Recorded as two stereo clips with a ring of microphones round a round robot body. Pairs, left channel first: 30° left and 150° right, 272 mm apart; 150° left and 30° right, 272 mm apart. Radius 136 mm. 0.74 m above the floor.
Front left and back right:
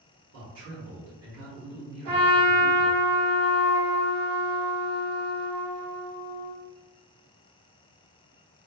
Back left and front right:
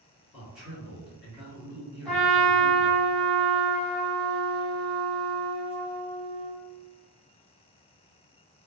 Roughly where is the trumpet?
Behind right.